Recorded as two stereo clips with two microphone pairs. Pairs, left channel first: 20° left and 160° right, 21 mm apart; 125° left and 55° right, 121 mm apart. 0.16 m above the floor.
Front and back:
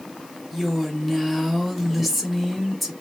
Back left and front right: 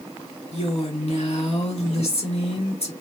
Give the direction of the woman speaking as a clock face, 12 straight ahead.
8 o'clock.